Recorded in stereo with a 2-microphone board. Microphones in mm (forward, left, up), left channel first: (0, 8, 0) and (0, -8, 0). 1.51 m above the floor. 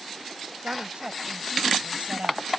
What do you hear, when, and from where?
0.6 s a woman speaking: 80° right